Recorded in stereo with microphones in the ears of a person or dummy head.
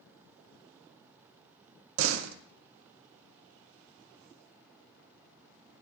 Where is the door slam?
80° right, 0.5 m.